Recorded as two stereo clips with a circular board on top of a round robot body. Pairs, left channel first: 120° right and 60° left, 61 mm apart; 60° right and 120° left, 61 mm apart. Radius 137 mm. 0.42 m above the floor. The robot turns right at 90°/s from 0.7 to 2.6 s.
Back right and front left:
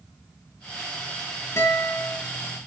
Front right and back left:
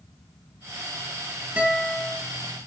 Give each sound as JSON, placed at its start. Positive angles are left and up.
{"t": 1.6, "sound": "a guitar", "azimuth_deg": -170, "distance_m": 3.5}